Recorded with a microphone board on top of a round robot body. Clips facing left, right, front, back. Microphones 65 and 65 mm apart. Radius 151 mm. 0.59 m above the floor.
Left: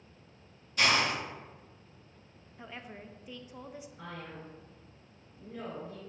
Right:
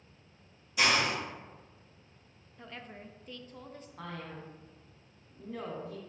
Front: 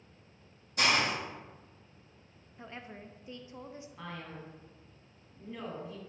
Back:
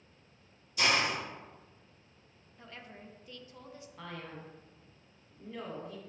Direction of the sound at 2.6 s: 25° left.